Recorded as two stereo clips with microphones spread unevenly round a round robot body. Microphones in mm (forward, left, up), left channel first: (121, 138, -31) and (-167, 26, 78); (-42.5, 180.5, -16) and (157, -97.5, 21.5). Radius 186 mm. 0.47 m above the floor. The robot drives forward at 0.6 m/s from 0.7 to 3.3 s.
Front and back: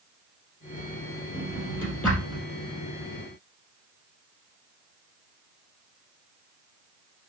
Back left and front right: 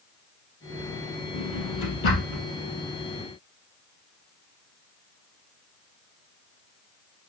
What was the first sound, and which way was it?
A drawer, 100° left.